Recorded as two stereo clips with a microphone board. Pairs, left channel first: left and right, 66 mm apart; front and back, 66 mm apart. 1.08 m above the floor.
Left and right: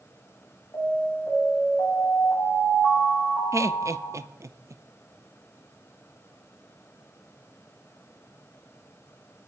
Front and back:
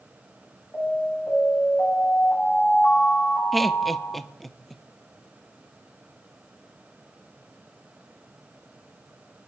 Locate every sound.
0.7 s an alarm: 60° left, 8 m
3.5 s laughter: 85° right, 0.7 m